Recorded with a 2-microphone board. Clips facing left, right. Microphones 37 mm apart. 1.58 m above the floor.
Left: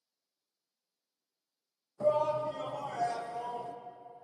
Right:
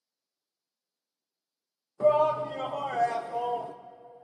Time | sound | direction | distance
2.0 | a shout | 45° right (ahead or behind) | 0.5 m